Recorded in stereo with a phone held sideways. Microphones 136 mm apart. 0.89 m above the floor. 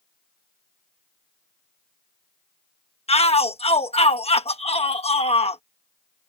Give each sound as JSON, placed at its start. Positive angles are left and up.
{"t": 3.1, "sound": "a shout", "side_deg": 50}